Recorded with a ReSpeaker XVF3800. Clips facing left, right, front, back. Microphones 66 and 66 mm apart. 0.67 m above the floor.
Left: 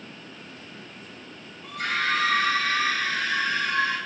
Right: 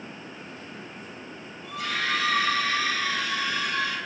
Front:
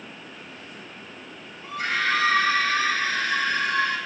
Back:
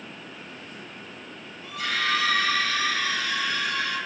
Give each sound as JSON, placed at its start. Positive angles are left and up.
{"t": 1.6, "sound": "a scream", "azimuth_deg": 55, "distance_m": 3.5}